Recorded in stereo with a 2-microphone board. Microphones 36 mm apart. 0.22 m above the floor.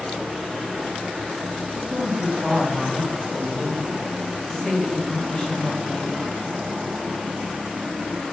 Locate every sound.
1.7 s a woman speaking: 50° right (ahead or behind), 1.8 m; by 6.2 s 45° left (ahead or behind), 1.4 m